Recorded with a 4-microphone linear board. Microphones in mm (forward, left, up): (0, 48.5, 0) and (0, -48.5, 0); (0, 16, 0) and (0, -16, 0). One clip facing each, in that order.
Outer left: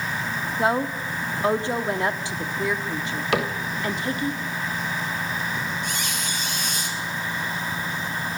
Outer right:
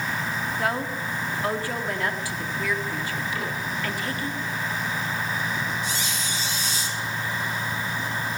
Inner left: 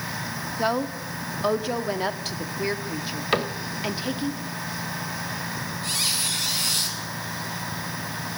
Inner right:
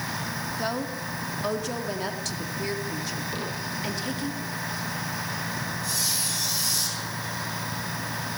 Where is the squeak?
55° left (ahead or behind), 6 m.